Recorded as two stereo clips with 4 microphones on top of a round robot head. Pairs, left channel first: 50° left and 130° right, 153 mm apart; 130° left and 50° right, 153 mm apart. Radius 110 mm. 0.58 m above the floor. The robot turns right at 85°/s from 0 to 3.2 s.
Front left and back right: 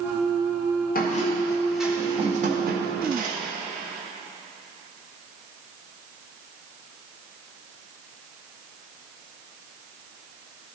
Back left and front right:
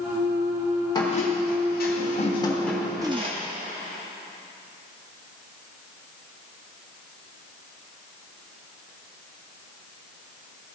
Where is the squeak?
70° left, 1.2 m; by 3.4 s 100° right, 1.2 m.